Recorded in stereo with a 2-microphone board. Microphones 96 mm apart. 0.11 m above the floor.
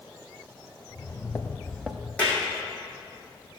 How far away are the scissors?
I don't hear scissors.